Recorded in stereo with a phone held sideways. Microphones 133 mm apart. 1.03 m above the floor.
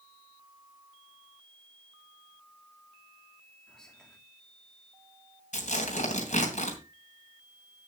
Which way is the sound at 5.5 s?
65° left (ahead or behind).